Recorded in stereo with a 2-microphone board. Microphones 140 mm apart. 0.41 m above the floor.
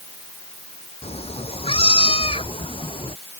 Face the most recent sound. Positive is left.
turn(degrees=35)  # may be behind; listen again after turning